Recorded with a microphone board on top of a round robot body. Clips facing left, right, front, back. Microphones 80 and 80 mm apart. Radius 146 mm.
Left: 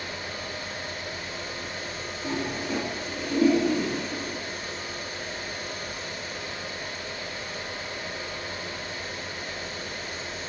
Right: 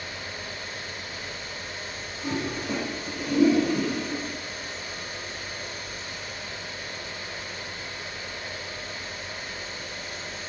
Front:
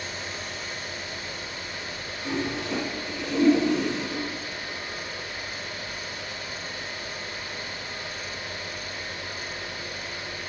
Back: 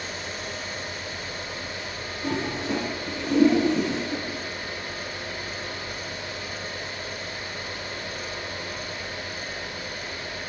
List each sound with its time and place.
2.2 s a toilet flushing: 130° right, 4 m